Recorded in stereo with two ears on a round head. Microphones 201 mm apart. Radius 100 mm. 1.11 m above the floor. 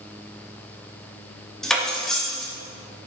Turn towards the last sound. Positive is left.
turn(degrees=0)  # may be behind; listen again after turning